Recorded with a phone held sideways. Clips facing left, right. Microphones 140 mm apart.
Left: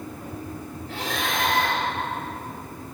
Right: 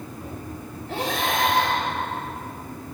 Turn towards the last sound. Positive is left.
turn(degrees=-60)  # may be behind; listen again after turning